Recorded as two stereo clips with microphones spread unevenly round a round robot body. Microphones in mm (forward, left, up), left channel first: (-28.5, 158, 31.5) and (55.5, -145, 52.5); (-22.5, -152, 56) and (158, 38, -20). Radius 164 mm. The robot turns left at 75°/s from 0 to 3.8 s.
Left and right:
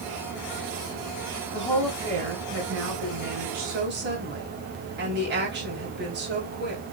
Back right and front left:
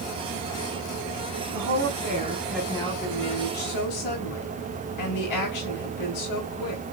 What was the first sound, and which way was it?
A woman speaking, 40° left.